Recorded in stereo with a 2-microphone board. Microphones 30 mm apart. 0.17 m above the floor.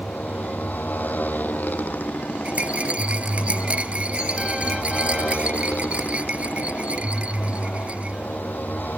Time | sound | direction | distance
0.0 | a motorcycle | 80° left | ?
2.5 | a rattle | 50° right (ahead or behind) | ?